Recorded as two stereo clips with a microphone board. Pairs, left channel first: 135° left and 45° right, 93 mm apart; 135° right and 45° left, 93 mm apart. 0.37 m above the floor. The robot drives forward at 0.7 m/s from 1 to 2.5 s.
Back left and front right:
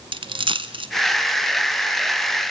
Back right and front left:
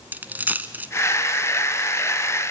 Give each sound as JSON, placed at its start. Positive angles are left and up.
{"t": 0.1, "sound": "a dropped coin", "azimuth_deg": -25, "distance_m": 0.9}